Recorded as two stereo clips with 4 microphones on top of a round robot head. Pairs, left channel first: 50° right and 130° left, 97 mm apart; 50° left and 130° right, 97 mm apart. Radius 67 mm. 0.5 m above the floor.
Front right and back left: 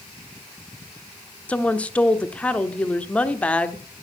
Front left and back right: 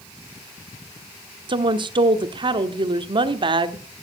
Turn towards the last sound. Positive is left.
turn(degrees=-120)